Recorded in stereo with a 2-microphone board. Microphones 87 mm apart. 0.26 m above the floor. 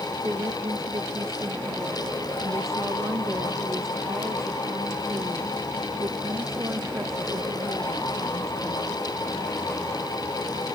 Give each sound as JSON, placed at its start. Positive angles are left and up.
{"t": 0.2, "sound": "a woman speaking", "side_deg": -35}